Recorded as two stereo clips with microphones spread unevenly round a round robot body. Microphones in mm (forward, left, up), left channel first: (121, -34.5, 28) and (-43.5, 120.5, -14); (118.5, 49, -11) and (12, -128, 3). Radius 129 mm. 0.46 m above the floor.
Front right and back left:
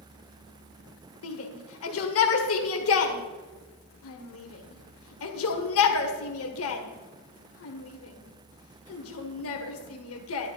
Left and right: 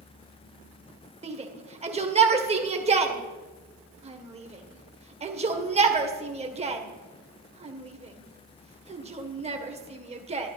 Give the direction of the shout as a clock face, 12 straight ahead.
2 o'clock.